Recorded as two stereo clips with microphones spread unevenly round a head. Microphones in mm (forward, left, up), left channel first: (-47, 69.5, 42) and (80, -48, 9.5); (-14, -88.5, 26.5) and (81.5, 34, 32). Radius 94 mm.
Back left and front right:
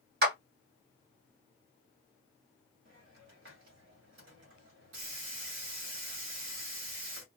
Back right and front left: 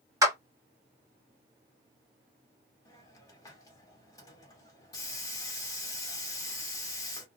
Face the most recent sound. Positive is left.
turn(degrees=-60)